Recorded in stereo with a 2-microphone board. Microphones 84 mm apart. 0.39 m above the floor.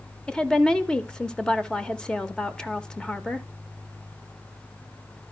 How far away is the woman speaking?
About 0.8 m.